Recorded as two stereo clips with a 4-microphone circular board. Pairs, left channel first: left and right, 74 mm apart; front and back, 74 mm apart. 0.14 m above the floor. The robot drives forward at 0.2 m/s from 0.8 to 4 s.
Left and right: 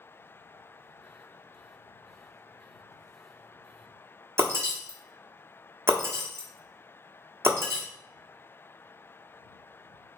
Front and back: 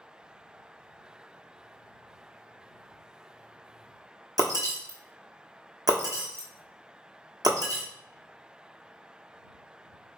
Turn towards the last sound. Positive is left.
turn(degrees=-145)